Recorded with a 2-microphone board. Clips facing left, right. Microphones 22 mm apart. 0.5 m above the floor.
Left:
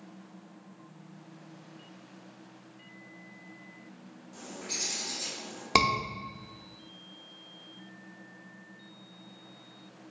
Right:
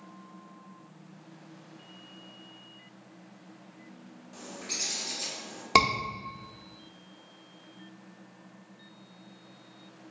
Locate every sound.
4.3 s a bird: 5° right (ahead or behind), 1.2 m
5.8 s a scream: 5° right (ahead or behind), 0.7 m